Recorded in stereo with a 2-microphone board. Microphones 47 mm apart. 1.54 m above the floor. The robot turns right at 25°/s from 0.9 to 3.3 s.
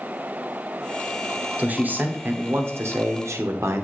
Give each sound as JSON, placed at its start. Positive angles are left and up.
{"t": 1.6, "sound": "a man speaking", "azimuth_deg": -150, "distance_m": 0.8}